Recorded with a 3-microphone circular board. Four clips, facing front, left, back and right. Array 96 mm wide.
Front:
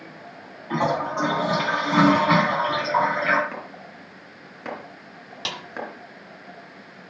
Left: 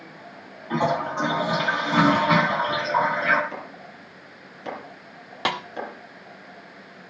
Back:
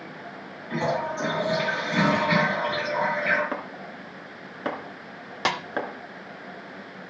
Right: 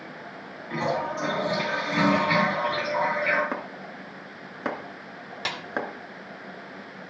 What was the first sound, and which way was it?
A toilet flushing, 35° left.